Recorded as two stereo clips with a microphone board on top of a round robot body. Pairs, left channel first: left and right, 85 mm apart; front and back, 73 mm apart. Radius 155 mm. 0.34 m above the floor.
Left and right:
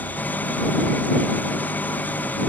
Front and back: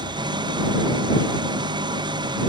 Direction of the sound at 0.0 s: 165° left.